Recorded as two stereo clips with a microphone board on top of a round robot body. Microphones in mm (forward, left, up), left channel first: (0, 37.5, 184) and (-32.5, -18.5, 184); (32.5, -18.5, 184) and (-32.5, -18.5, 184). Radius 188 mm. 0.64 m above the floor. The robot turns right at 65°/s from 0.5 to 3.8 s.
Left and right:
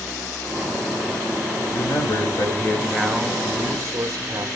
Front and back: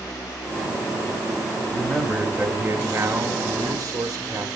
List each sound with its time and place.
1.7 s a man speaking: 65° left, 3.5 m; by 4.5 s 160° right, 3.5 m